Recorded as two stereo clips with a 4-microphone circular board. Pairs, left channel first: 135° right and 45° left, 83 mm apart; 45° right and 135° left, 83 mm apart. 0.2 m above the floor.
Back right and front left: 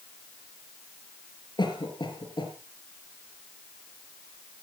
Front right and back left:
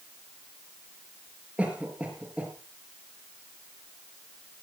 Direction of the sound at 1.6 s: 150° right.